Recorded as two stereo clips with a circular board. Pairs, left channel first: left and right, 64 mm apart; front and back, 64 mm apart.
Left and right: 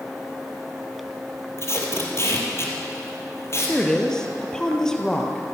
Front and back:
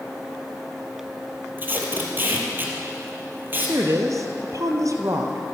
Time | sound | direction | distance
1.6 | tape being pulled | 125° left | 3.5 m
3.7 | a woman speaking | 165° left | 2 m